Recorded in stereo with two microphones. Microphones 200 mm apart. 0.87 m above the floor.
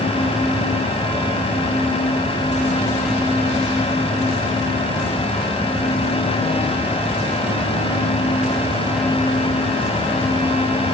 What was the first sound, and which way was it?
Only background noise.